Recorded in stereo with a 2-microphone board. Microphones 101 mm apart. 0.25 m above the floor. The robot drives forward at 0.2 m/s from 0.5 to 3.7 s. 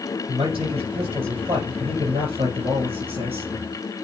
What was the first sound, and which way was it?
A man speaking, 65° right (ahead or behind).